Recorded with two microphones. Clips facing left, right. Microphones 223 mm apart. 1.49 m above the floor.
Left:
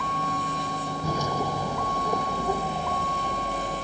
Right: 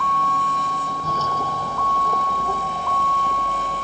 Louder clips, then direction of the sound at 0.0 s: Right 4 dB; 15° left (ahead or behind).